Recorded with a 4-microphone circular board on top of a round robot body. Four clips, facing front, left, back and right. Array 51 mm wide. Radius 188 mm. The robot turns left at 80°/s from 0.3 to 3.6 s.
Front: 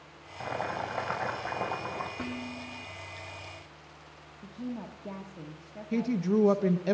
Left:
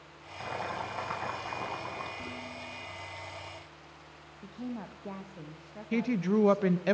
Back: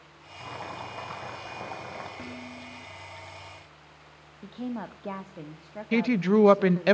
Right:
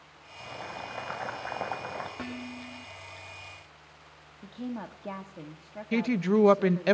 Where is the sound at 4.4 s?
165° right, 1.3 m.